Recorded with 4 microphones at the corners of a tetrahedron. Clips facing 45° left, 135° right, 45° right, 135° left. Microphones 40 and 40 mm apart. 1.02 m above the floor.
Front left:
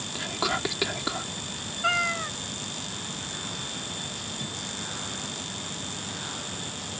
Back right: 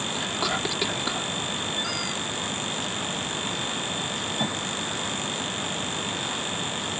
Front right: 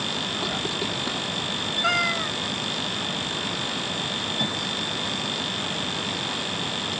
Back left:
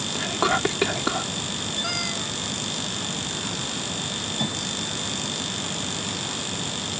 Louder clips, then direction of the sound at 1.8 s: Front left 4 dB, front right 6 dB; straight ahead.